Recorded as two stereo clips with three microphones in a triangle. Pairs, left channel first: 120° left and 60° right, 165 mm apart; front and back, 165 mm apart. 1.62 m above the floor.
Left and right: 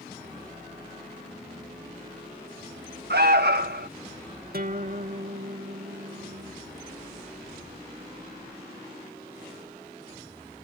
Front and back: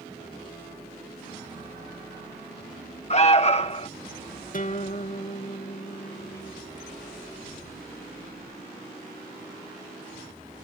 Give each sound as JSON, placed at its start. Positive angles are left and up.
{"t": 3.1, "sound": "an alarm", "azimuth_deg": -50}
{"t": 4.5, "sound": "a guitar", "azimuth_deg": -35}